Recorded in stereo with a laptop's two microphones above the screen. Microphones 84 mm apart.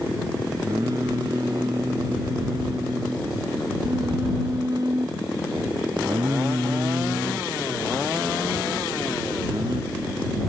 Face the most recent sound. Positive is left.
turn(degrees=-50)  # may be behind; listen again after turning